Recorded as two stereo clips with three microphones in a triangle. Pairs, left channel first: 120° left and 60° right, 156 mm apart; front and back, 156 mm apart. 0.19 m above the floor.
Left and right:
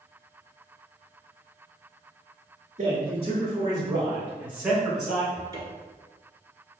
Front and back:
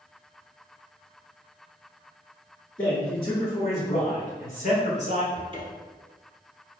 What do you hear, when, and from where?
2.8 s a man speaking: 50° right, 1.8 m; by 5.2 s 30° left, 2.5 m
5.3 s a cupboard door: 125° right, 1.1 m